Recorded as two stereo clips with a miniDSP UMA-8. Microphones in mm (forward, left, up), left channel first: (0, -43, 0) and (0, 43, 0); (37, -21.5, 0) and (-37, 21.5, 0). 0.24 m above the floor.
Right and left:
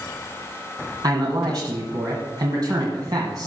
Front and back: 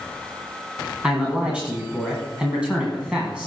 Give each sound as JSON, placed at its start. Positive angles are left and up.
{"t": 1.0, "sound": "a man speaking", "azimuth_deg": 75, "distance_m": 1.9}